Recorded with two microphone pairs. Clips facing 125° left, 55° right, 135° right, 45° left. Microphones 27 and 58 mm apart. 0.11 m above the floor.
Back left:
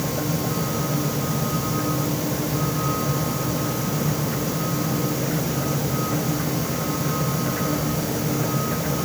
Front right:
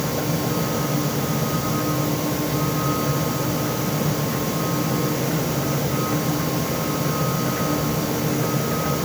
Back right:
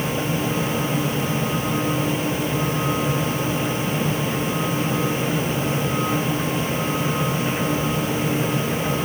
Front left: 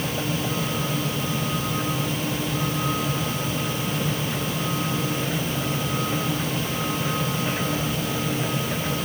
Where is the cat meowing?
I don't hear a cat meowing.